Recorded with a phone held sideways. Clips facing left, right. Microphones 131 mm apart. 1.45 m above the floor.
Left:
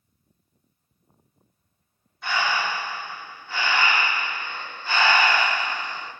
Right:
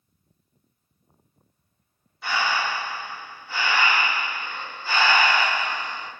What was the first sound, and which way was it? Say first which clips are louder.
Breathing: even; 5° right (ahead or behind).